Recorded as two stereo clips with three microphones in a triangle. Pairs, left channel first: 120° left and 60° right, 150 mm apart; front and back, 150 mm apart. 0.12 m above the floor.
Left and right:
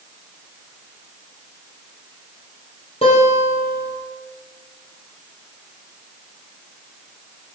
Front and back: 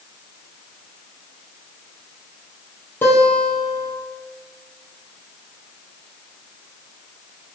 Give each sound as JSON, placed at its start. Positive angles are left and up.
{"t": 3.0, "sound": "a guitar", "azimuth_deg": 75, "distance_m": 3.0}